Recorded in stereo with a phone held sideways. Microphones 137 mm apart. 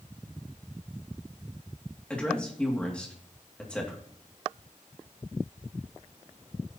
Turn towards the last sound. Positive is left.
turn(degrees=10)  # may be behind; listen again after turning